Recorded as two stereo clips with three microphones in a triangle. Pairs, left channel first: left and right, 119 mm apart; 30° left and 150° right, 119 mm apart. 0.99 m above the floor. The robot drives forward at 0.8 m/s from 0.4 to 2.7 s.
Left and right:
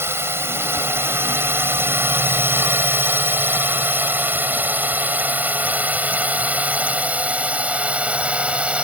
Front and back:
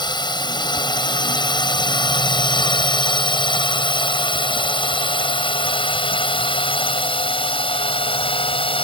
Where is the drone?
20° right; by 8.8 s 10° right.